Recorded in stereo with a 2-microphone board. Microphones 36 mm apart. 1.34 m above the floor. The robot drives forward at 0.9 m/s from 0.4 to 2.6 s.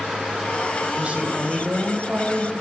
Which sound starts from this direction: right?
A woman speaking, at 1.0 s.